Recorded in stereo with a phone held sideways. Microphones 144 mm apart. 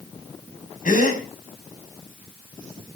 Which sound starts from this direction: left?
A gasp, at 0.8 s.